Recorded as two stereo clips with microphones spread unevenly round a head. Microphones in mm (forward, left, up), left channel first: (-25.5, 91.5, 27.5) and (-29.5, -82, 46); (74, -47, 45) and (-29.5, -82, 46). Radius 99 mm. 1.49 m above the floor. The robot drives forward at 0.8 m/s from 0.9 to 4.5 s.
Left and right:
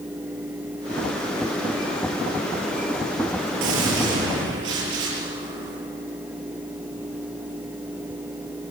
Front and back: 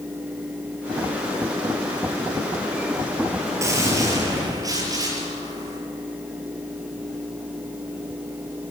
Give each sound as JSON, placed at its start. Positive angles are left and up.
{"t": 3.6, "sound": "a gunshot", "azimuth_deg": -100, "distance_m": 6.0}